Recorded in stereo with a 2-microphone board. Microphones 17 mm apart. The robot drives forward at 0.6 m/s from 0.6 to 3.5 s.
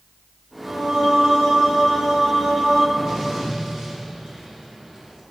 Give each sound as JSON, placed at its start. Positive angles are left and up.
{"t": 0.7, "sound": "singing", "side_deg": -50, "distance_m": 2.0}
{"t": 3.0, "sound": "an explosion", "side_deg": -55, "distance_m": 4.0}